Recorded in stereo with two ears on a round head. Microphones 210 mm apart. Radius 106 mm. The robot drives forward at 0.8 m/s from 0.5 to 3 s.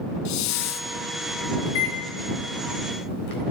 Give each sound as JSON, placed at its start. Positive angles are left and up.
{"t": 0.2, "sound": "a hiss", "side_deg": 85, "distance_m": 0.6}
{"t": 1.6, "sound": "a microwave", "side_deg": 70, "distance_m": 3.0}